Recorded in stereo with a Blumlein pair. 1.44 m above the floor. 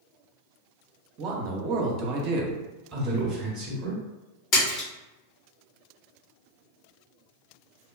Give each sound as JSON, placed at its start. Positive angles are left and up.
{"t": 1.2, "sound": "a man speaking", "azimuth_deg": -35, "distance_m": 0.7}
{"t": 2.9, "sound": "a man speaking", "azimuth_deg": -20, "distance_m": 0.9}
{"t": 4.5, "sound": "a splash", "azimuth_deg": 35, "distance_m": 1.2}